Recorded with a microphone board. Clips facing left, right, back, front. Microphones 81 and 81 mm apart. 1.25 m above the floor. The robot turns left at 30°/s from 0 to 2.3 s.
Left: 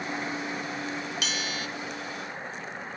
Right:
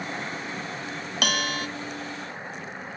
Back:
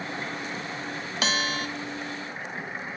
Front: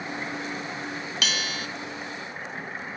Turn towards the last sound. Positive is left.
turn(degrees=-155)